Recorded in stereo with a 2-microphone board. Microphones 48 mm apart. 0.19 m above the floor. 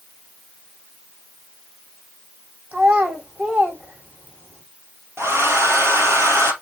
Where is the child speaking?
35° right (ahead or behind), 6 m.